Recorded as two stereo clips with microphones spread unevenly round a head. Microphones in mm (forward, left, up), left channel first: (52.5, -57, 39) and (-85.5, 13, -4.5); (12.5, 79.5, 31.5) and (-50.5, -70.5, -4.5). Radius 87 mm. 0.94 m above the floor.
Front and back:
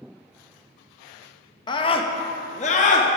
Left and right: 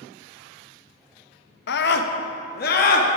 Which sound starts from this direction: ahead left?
A scream, at 1.7 s.